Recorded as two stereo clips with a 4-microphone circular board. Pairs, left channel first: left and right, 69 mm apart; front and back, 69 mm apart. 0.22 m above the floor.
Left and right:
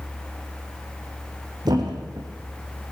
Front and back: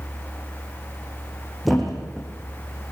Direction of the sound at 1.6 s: 90° right.